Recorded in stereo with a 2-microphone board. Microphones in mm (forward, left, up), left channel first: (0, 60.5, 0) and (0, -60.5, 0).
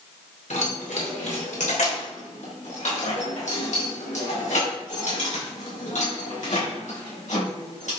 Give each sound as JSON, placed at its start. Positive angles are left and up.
{"t": 0.5, "sound": "keys jangling", "side_deg": 80, "distance_m": 2.5}